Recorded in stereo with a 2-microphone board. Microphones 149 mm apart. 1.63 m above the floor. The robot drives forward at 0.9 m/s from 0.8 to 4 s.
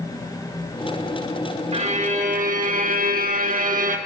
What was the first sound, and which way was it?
A violin, 45° right (ahead or behind).